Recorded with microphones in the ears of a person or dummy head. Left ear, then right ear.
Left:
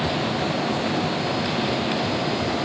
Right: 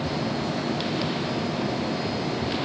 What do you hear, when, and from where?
Only background noise.